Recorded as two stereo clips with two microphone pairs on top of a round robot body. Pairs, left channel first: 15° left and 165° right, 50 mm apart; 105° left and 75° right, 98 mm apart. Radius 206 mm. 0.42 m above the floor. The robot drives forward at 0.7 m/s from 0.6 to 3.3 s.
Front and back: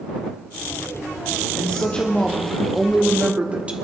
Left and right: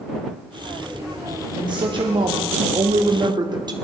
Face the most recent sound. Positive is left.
turn(degrees=-110)